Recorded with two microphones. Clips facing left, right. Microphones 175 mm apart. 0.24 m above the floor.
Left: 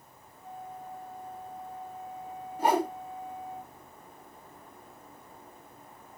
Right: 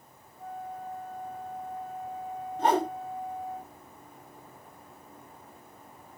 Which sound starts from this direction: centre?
A whoosh, at 2.6 s.